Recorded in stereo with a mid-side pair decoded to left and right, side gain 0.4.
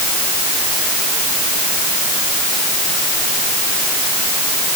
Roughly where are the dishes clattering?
I don't hear dishes clattering.